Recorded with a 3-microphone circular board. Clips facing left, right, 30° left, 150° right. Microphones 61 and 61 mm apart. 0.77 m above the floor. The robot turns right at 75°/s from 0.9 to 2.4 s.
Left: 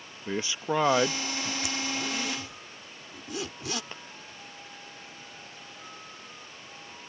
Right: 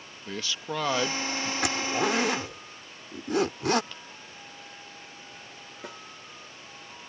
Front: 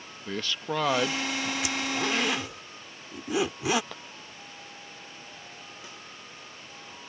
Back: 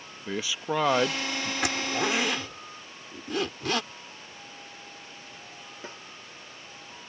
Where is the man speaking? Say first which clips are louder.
Left 4 dB, back 2 dB; 140° left; by 1.5 s 175° right.